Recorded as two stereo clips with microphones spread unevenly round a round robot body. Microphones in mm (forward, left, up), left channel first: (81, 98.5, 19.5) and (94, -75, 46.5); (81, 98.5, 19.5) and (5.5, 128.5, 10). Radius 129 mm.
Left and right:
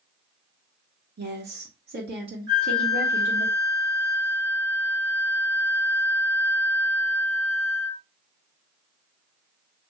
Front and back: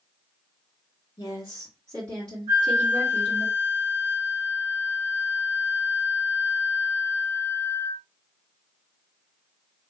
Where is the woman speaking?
75° right, 1.4 m; by 3.5 s 140° right, 1.4 m.